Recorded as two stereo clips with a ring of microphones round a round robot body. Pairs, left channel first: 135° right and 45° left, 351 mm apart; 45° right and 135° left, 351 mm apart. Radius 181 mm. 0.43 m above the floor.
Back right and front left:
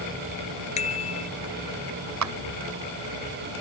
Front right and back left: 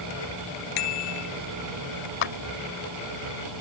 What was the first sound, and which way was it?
A bicycle bell, 65° right.